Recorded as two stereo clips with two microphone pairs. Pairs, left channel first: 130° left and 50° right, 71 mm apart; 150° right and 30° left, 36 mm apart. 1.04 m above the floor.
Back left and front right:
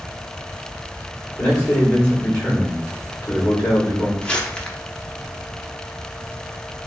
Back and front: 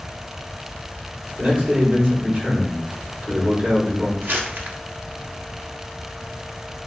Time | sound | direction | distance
1.4 | a man speaking | 60° left | 4.5 m
4.2 | crumpling | 55° left | 1.4 m